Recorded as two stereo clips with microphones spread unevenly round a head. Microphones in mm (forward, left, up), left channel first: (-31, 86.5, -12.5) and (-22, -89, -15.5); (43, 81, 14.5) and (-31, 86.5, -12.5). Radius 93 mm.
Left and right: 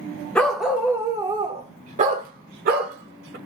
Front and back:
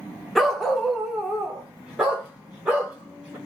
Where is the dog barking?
20° left, 1.1 m; by 3.4 s 85° right, 1.8 m.